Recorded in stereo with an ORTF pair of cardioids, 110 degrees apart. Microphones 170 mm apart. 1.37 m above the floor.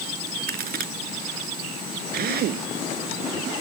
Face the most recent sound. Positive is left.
turn(degrees=-65)